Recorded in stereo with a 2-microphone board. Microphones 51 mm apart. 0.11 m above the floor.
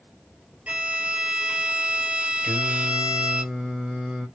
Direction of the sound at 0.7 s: 30° right (ahead or behind).